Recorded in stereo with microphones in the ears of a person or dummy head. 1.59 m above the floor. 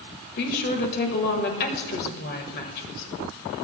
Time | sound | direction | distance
0.4 | a woman speaking | 55° left (ahead or behind) | 1.5 m